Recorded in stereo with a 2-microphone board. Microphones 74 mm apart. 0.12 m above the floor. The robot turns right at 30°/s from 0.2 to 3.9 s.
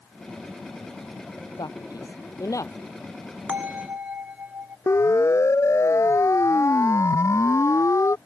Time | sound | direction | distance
1.6 | a man speaking | 65° left (ahead or behind) | ?
3.5 | a bell | 20° right (ahead or behind) | ?
4.9 | a siren | 40° left (ahead or behind) | ?